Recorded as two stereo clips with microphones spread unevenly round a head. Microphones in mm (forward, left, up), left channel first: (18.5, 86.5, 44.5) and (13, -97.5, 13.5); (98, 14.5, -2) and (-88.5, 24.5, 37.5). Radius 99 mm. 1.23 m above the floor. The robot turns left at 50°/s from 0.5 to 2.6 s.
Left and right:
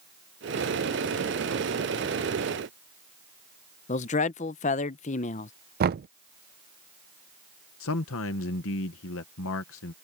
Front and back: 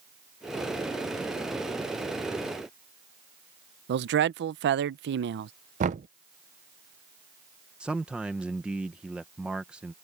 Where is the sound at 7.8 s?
90° left.